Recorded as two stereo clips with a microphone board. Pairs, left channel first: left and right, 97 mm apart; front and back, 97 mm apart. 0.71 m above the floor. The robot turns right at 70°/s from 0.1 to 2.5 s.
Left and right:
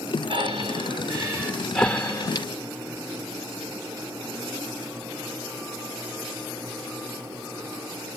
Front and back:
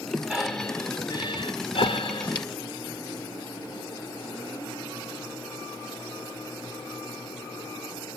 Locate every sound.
0.3 s breathing: 105° right, 1.6 m; by 2.5 s 45° left, 1.6 m